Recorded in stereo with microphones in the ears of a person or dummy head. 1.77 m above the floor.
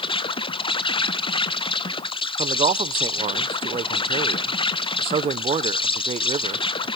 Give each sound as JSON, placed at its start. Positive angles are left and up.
{"t": 0.0, "sound": "an insect", "side_deg": 30, "distance_m": 0.8}
{"t": 2.4, "sound": "a man speaking", "side_deg": -35, "distance_m": 0.7}